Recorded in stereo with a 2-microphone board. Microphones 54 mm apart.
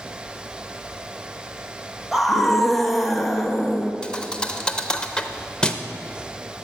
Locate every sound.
2.1 s a scream: centre (ahead or behind), 0.8 m
4.0 s a thud: 15° left (ahead or behind), 0.5 m